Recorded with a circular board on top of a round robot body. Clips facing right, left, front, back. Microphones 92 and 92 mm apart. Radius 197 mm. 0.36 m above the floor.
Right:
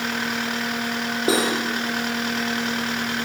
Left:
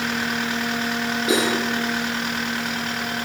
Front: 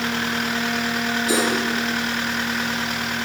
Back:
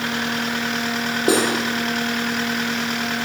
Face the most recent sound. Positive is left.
turn(degrees=-145)